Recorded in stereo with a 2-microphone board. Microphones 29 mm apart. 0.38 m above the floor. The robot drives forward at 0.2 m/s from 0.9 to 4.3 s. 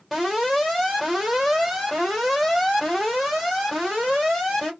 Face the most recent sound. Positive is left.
turn(degrees=0)  # may be behind; listen again after turning